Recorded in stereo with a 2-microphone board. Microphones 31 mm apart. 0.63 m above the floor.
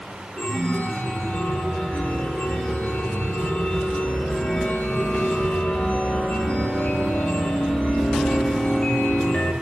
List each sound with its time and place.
0.4 s a chime: 55° left (ahead or behind), 1.9 m